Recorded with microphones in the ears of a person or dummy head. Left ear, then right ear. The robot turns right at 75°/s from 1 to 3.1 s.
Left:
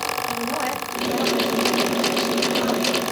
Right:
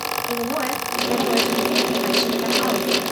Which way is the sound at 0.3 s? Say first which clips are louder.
Right 1 dB; 150° right.